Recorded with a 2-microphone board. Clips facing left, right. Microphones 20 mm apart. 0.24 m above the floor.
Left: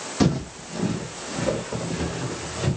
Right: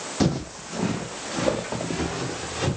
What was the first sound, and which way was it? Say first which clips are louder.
Footsteps: left 2 dB; 5° left (ahead or behind).